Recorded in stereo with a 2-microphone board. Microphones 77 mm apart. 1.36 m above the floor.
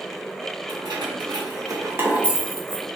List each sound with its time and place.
0.7 s keys jangling: 75° right (ahead or behind), 1.2 m; by 2.9 s 20° left (ahead or behind), 0.8 m